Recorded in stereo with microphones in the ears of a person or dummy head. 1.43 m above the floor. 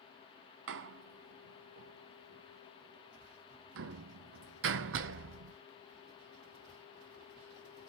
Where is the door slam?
65° right (ahead or behind), 0.6 m.